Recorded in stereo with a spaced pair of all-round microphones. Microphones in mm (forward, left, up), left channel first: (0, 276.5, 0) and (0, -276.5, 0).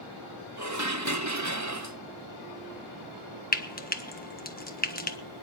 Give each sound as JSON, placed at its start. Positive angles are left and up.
{"t": 0.6, "sound": "dishes clattering", "side_deg": -30, "distance_m": 1.0}
{"t": 3.5, "sound": "frying", "side_deg": 15, "distance_m": 1.1}